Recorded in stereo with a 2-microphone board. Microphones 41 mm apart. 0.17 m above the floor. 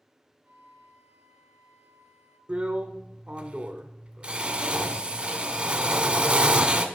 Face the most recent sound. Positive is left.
turn(degrees=-30)  # may be behind; listen again after turning